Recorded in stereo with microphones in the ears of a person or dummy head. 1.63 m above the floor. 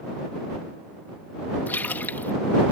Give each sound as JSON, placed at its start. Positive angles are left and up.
{"t": 1.7, "sound": "a splash", "side_deg": 10}